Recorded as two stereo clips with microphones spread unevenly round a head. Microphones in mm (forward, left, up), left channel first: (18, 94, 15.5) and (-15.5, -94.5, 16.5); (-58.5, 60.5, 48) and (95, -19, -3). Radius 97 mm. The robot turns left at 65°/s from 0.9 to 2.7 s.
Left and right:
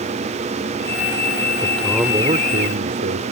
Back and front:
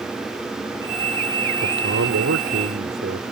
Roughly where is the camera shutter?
No camera shutter in this recording.